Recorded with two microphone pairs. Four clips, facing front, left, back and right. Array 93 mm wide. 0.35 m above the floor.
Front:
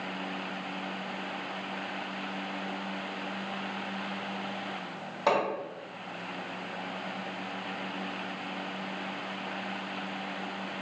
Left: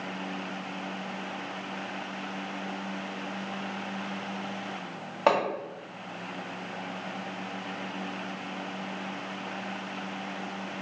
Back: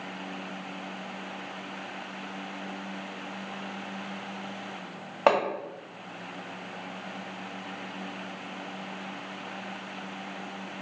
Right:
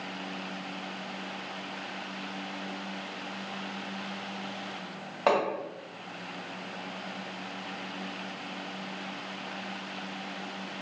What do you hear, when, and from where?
5.3 s hammering: 170° left, 1.6 m